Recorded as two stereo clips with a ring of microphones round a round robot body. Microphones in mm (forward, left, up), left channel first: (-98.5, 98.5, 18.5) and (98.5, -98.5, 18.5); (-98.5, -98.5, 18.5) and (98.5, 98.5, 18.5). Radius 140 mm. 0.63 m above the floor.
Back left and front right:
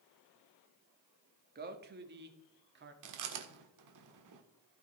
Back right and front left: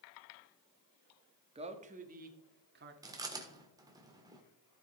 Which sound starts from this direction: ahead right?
Chewing, at 3.0 s.